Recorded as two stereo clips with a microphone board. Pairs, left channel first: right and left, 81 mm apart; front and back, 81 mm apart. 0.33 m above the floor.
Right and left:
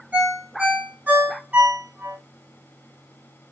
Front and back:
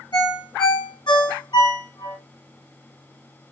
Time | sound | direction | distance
0.1 | a ringtone | 20° left | 1.8 m